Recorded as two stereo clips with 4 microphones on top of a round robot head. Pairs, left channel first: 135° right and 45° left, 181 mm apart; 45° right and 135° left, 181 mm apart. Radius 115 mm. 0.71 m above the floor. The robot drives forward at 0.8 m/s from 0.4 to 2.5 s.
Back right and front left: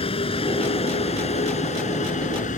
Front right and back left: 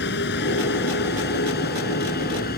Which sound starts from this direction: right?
A vehicle, at 0.0 s.